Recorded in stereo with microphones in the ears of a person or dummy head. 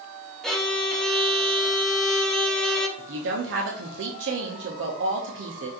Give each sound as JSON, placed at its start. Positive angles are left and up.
{"t": 0.4, "sound": "a violin", "side_deg": 0, "distance_m": 0.6}
{"t": 3.0, "sound": "a woman speaking", "side_deg": -60, "distance_m": 0.7}